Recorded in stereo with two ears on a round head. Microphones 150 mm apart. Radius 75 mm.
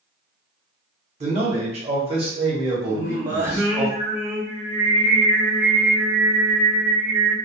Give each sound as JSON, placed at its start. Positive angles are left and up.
{"t": 1.2, "sound": "a man speaking", "side_deg": -40, "distance_m": 1.0}
{"t": 2.9, "sound": "singing", "side_deg": -15, "distance_m": 1.3}